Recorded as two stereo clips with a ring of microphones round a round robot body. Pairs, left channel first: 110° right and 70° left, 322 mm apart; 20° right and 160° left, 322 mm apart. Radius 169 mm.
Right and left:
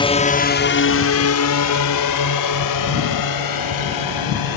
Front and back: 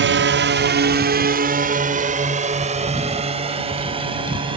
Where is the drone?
175° right; by 4.6 s 125° right.